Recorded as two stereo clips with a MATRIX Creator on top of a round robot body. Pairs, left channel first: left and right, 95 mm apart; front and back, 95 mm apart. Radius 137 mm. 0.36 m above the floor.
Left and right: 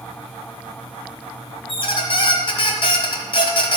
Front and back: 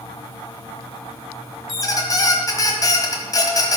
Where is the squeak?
55° left, 1.3 m.